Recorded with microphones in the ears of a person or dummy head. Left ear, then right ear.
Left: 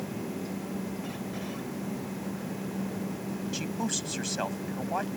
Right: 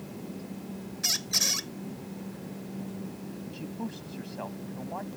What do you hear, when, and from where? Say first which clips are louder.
1.0 s a squeak: right 11 dB; 70° right (ahead or behind)
3.5 s a man speaking: left 8 dB; 65° left (ahead or behind)